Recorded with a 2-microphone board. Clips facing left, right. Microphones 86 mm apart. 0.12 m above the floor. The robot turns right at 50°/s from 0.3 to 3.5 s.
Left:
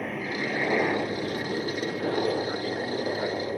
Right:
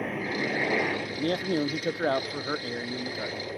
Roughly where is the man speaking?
Right.